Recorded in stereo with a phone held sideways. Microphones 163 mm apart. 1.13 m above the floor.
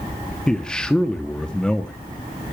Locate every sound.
0.5 s a man speaking: 5° left (ahead or behind), 0.9 m